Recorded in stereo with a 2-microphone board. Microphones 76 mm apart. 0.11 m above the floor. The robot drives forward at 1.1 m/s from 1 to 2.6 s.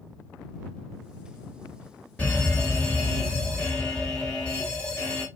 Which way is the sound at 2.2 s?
15° left (ahead or behind).